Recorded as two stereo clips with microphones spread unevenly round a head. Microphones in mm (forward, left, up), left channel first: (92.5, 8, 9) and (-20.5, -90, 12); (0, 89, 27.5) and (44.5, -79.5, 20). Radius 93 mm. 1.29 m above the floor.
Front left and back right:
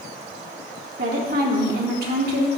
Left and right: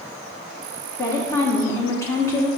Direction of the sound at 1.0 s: Straight behind.